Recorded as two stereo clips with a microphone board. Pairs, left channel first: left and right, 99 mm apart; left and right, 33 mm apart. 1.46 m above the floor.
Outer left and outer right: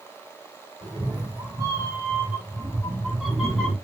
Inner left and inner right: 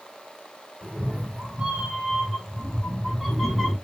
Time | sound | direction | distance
0.8 | a cat meowing | 50° right (ahead or behind) | 1.8 m